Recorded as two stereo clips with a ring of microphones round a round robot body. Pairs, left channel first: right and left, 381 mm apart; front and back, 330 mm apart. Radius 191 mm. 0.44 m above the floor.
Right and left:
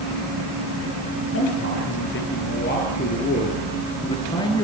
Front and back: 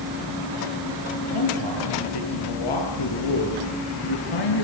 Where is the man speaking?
30° right, 8 m; by 4.6 s 10° right, 6 m.